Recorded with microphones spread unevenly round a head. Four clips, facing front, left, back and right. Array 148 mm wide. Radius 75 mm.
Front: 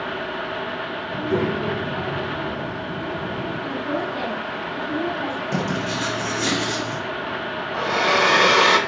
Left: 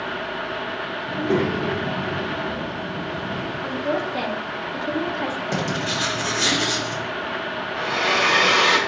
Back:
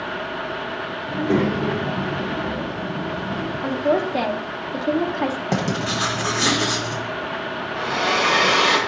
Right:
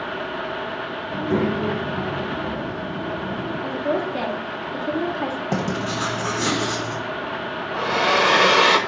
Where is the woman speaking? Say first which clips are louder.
Right 1 dB, back 8 dB; 175° left, 1.2 m.